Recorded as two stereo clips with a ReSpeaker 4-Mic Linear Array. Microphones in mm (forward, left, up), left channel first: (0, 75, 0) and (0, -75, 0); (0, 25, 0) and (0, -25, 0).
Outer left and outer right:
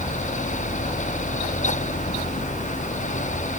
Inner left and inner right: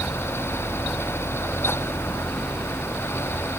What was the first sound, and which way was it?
Only background noise.